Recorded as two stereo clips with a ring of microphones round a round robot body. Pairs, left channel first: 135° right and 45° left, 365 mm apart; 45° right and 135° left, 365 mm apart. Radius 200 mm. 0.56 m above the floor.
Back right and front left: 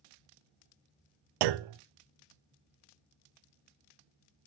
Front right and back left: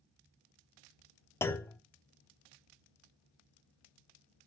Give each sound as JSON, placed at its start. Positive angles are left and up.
{"t": 1.4, "sound": "a clunk", "azimuth_deg": 40, "distance_m": 0.5}